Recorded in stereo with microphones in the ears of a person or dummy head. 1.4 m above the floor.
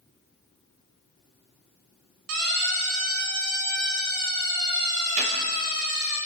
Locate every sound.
2.3 s a siren: 85° right, 6 m; by 6.2 s 80° right, 12 m
5.2 s a gunshot: 35° right (ahead or behind), 3.5 m